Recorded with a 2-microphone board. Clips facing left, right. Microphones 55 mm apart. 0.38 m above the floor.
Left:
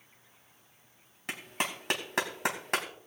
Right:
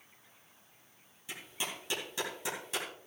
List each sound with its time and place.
1.3 s a clap: 65° left (ahead or behind), 2.5 m